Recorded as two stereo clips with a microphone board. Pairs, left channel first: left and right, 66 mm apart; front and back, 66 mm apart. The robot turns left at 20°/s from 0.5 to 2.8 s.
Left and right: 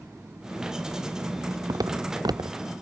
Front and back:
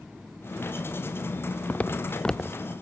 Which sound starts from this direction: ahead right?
Footsteps, at 1.7 s.